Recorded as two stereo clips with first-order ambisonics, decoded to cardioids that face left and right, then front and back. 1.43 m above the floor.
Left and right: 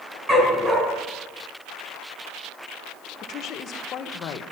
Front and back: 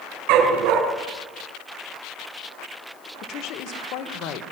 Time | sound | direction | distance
0.3 | a dog barking | 165° right | 4 m
3.2 | a woman speaking | 35° left | 1.4 m